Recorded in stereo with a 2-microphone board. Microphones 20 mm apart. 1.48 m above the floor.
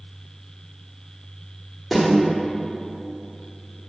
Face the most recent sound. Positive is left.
turn(degrees=20)  # may be behind; listen again after turning